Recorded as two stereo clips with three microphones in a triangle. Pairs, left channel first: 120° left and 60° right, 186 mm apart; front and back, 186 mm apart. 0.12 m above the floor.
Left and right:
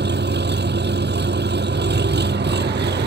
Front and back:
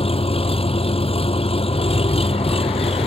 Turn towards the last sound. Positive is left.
turn(degrees=-55)